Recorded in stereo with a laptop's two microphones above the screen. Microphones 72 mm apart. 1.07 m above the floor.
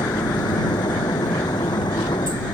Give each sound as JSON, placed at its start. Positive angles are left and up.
{"t": 0.0, "sound": "a machine running", "side_deg": 90}